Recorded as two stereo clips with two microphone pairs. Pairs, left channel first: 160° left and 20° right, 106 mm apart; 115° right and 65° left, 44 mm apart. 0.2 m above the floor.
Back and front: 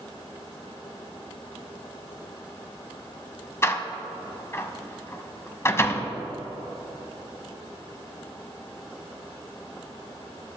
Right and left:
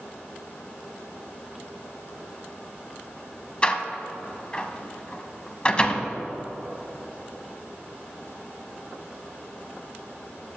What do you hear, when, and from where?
3.6 s a door slam: 160° right, 0.8 m